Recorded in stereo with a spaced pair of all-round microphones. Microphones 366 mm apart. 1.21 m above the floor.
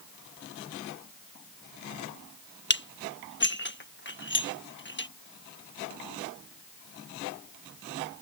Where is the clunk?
No clunk in this recording.